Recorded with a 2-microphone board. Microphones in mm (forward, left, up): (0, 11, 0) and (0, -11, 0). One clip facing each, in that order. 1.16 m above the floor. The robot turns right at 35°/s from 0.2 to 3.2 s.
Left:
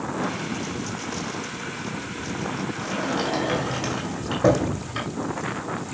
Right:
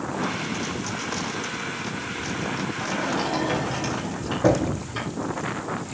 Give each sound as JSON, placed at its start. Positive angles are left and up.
{"t": 2.8, "sound": "a sliding door", "side_deg": -5, "distance_m": 5.5}